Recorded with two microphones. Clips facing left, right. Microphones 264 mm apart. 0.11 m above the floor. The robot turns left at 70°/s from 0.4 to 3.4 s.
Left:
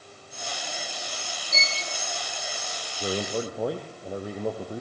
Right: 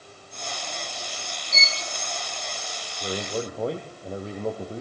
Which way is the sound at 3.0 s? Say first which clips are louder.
Left 1 dB; 25° left (ahead or behind).